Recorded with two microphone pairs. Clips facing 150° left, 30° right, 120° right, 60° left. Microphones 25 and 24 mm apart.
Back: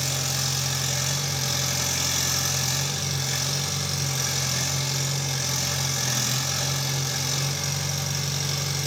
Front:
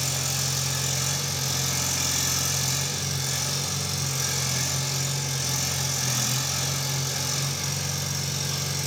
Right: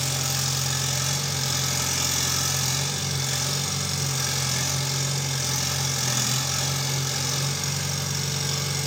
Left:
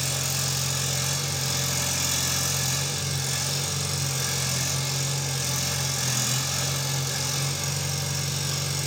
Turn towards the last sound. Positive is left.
turn(degrees=-170)